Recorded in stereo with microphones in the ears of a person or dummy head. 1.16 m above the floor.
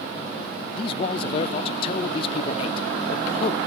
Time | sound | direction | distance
0.8 | a man speaking | 30° left (ahead or behind) | 0.7 m